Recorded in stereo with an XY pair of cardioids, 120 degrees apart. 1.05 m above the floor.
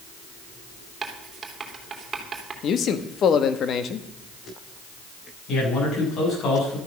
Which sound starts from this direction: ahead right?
Writing, at 1.0 s.